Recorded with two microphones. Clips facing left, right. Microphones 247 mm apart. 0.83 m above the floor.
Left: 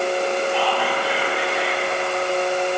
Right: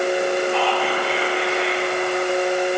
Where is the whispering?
15° left (ahead or behind), 2.5 m.